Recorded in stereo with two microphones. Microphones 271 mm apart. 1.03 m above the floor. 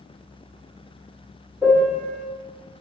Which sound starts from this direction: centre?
A piano, at 1.6 s.